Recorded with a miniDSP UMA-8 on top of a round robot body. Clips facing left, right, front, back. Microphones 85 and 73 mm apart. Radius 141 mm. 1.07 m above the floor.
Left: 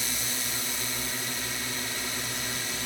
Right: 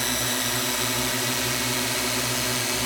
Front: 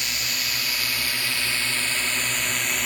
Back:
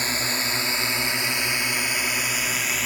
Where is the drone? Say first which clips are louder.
Right 8 dB, back 4 dB; 125° right; by 2.9 s 90° right.